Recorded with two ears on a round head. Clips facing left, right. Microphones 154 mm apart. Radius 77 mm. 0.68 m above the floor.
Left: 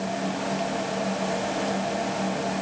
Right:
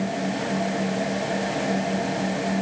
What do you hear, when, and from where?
Only background noise.